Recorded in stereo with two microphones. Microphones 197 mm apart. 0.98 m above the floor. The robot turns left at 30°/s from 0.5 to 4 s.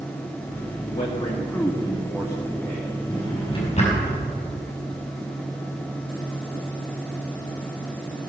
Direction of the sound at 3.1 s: 15° left (ahead or behind).